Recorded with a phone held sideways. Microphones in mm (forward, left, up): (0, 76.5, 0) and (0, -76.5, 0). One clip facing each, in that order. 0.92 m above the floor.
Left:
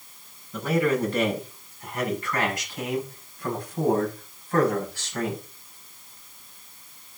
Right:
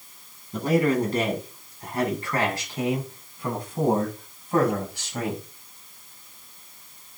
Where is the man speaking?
35° right (ahead or behind), 9.5 m; by 5.4 s 15° right (ahead or behind), 6 m.